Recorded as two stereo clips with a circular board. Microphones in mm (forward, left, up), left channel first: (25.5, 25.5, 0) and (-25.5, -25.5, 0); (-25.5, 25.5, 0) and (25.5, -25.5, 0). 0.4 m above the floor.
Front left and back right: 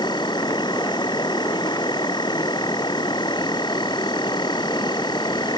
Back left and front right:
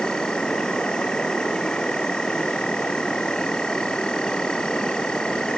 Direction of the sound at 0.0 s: 55° left.